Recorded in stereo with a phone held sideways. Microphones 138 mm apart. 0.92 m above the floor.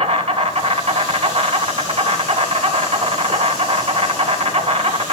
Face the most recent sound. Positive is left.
turn(degrees=-50)  # may be behind; listen again after turning